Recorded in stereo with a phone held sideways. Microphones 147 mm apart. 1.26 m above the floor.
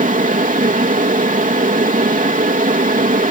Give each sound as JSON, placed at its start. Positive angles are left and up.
{"t": 0.0, "sound": "a fan", "side_deg": -65}